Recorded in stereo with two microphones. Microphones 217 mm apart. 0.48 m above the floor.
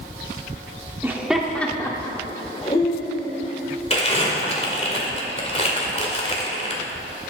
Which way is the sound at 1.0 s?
10° right (ahead or behind).